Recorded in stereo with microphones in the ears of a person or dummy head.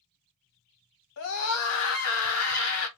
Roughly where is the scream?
Left.